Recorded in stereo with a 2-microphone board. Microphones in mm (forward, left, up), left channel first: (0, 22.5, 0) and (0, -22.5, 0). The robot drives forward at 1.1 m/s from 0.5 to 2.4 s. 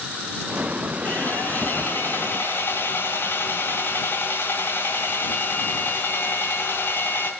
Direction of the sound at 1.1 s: 40° left (ahead or behind).